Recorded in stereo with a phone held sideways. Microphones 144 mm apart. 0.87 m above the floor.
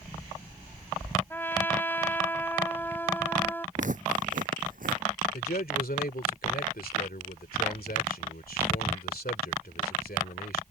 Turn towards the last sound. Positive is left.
turn(degrees=80)